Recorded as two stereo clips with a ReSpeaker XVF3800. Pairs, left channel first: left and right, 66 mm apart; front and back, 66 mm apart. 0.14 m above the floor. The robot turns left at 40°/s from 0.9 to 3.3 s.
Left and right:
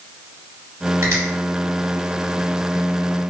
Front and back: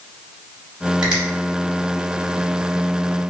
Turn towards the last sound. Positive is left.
turn(degrees=160)